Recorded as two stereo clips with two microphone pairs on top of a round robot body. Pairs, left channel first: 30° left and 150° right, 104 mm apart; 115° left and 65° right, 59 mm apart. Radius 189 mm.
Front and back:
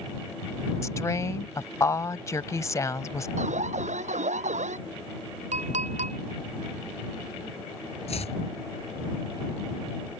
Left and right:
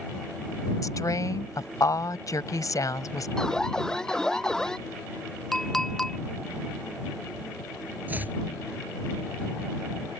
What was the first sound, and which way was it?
A woman speaking, 90° left.